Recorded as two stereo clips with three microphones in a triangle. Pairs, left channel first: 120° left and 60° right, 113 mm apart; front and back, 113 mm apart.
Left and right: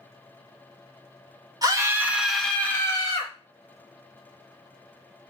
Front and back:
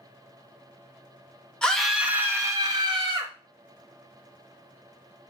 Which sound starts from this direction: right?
A scream, at 1.6 s.